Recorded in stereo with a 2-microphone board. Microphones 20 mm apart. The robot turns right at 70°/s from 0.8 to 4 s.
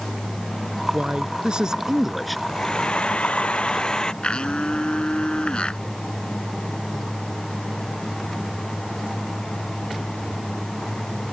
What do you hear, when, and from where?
0.9 s a man speaking: 95° right; by 2.4 s 5° left
2.5 s a hair dryer: 25° left; by 4.1 s 135° left
4.2 s a blender: 60° left (ahead or behind)